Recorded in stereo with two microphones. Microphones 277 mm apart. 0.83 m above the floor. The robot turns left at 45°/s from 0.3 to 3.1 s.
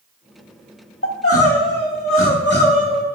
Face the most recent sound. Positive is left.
turn(degrees=25)